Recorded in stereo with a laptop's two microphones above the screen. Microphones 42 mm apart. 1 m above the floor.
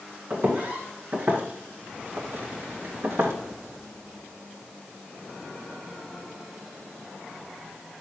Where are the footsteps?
45° right (ahead or behind), 3.5 m; by 3.3 s 60° right (ahead or behind), 2.5 m.